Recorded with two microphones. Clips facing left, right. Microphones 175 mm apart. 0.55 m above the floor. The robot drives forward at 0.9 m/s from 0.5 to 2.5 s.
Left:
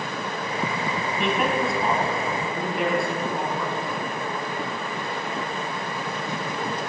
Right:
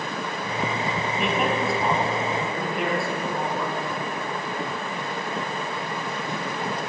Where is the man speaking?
Centre (ahead or behind), 3 m.